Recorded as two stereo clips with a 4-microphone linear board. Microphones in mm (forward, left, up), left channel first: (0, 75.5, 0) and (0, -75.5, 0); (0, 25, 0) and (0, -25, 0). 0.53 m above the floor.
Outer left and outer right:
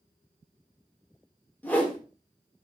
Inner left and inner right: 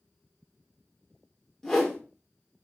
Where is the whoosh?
10° left (ahead or behind), 0.9 m.